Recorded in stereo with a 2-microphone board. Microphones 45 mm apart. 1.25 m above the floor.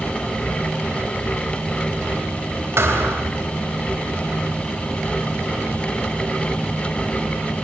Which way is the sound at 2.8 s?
65° right (ahead or behind).